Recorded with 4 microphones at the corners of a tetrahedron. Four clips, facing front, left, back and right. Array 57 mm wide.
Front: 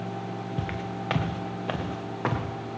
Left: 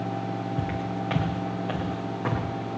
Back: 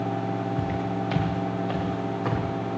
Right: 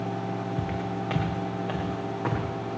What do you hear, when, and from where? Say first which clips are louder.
0.6 s footsteps: left 1 dB, back 5 dB; 15° left, 2.5 m; by 2.4 s straight ahead, 4 m